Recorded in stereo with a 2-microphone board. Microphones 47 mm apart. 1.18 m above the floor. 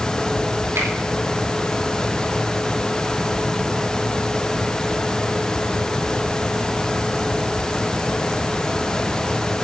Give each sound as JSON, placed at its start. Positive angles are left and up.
{"t": 0.8, "sound": "a finger snap", "side_deg": -70, "distance_m": 4.5}